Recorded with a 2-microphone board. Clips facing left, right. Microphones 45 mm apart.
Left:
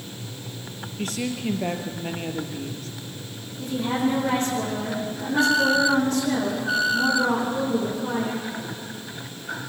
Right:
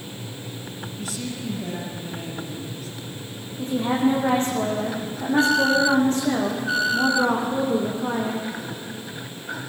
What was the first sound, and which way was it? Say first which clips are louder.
A woman speaking: left 5 dB; 55° left (ahead or behind).